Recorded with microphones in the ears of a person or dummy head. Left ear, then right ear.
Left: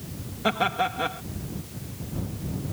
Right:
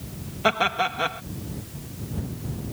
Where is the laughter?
35° right (ahead or behind).